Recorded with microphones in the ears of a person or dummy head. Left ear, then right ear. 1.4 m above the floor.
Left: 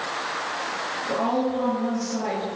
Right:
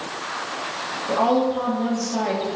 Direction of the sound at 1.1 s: 50° right (ahead or behind).